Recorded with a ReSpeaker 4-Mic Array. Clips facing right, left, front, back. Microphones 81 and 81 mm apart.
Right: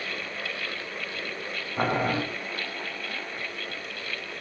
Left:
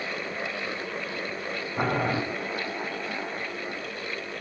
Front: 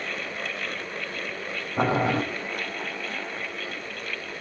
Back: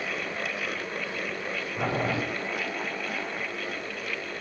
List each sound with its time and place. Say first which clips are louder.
1.8 s boiling: right 1 dB, front 6 dB; 5° right, 5.5 m